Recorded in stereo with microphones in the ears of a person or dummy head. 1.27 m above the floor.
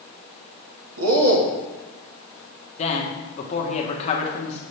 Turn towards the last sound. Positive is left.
turn(degrees=35)  # may be behind; listen again after turning